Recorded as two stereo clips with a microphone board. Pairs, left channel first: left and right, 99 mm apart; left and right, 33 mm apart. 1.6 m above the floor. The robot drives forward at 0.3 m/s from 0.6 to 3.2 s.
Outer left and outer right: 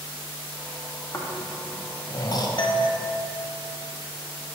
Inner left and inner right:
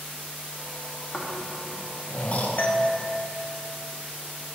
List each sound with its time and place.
1.1 s snoring: 30° left (ahead or behind), 0.8 m; by 2.5 s 45° left (ahead or behind), 0.6 m
2.6 s a doorbell: 50° left (ahead or behind), 0.6 m; by 2.9 s 45° left (ahead or behind), 0.7 m